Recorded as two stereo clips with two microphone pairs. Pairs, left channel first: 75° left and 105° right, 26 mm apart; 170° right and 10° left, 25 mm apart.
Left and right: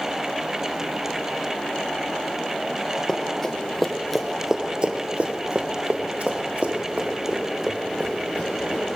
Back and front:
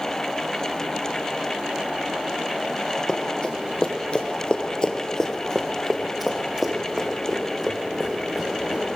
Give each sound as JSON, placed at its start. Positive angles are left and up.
{"t": 3.1, "sound": "running footsteps", "azimuth_deg": 145, "distance_m": 2.5}